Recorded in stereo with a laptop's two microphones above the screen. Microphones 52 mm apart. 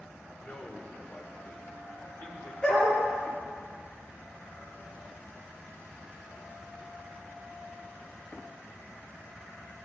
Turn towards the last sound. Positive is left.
turn(degrees=20)  # may be behind; listen again after turning